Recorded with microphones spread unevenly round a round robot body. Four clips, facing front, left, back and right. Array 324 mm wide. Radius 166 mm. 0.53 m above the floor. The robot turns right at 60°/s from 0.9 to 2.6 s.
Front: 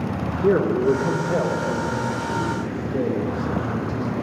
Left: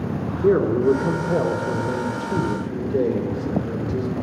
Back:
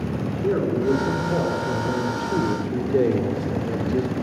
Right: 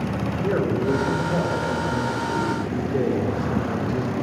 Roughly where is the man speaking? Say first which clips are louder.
Left 6 dB, front 4 dB; ahead left.